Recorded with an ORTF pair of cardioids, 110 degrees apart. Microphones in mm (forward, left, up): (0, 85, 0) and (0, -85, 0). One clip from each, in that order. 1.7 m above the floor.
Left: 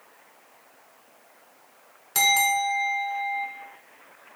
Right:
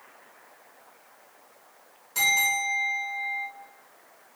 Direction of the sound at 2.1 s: 65° left.